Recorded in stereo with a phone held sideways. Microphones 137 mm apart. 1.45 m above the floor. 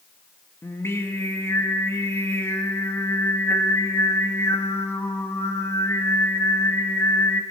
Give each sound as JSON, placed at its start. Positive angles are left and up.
{"t": 0.6, "sound": "singing", "side_deg": 20, "distance_m": 1.8}